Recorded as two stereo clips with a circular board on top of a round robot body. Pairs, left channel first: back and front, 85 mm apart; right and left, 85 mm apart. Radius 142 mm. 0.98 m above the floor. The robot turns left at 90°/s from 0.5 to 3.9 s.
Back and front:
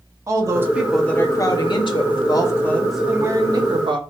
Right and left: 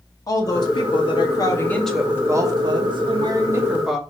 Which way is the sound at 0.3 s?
50° right.